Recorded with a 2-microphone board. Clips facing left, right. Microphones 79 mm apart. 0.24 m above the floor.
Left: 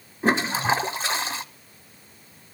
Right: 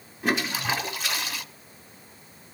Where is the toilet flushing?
35° left (ahead or behind), 1.0 m.